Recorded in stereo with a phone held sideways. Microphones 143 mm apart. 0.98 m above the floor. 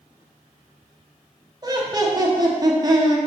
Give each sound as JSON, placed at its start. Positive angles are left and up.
{"t": 1.6, "sound": "laughter", "side_deg": -25, "distance_m": 0.9}